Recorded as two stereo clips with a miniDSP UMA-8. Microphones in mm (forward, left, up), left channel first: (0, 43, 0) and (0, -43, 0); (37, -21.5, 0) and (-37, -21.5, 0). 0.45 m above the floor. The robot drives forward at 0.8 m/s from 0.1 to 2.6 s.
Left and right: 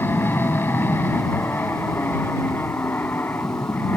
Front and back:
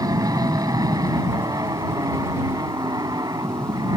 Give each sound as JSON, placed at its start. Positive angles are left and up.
{"t": 0.0, "sound": "an aircraft", "azimuth_deg": 150}